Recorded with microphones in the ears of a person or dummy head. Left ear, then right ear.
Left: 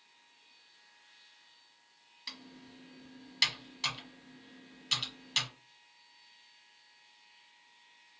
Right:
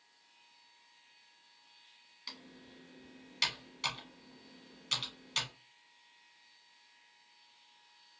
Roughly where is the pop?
I don't hear a pop.